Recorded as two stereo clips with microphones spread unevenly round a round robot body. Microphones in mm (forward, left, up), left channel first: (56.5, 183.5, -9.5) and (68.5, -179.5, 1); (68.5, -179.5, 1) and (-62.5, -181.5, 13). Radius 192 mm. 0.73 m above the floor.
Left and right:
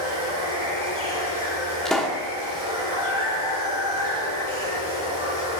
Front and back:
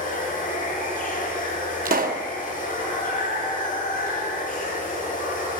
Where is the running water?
10° right, 7.5 m.